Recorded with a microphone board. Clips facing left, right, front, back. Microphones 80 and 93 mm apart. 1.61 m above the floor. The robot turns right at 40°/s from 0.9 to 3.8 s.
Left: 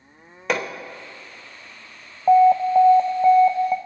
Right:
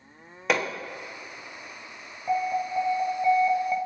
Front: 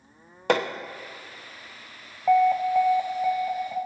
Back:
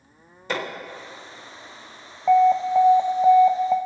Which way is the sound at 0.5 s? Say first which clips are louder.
Left 1 dB, front 5 dB; straight ahead.